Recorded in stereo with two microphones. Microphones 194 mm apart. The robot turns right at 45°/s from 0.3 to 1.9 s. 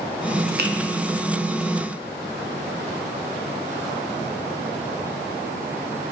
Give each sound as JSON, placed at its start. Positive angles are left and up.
{"t": 0.6, "sound": "a finger snap", "side_deg": -55, "distance_m": 0.9}